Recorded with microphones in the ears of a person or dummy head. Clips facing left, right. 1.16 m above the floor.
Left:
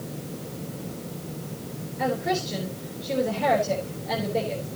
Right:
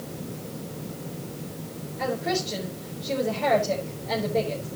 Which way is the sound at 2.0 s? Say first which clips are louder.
Left 1 dB; centre (ahead or behind).